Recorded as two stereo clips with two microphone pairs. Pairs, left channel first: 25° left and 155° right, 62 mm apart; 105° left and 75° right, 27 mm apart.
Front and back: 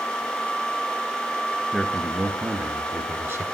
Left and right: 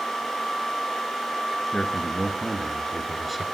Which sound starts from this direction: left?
A man speaking, at 1.7 s.